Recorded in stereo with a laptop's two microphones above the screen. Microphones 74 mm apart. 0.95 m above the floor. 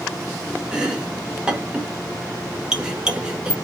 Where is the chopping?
10° right (ahead or behind), 0.8 m.